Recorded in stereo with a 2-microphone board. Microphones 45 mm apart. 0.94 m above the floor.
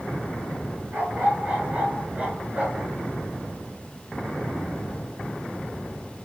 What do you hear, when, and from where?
0.9 s a dog barking: 35° right (ahead or behind), 6.5 m; by 2.9 s 30° right (ahead or behind), 6 m